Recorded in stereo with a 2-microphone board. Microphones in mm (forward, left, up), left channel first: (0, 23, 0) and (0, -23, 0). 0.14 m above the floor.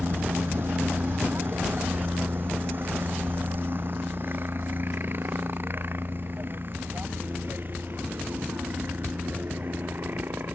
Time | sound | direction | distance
0.0 | a helicopter | 50° right (ahead or behind) | ?